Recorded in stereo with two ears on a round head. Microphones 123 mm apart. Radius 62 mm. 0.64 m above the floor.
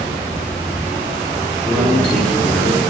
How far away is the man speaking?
About 7 m.